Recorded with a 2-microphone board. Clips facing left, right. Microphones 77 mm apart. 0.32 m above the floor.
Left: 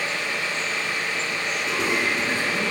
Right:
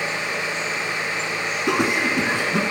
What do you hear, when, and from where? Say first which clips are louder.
1.7 s laughter: right 4 dB; 60° right (ahead or behind), 4 m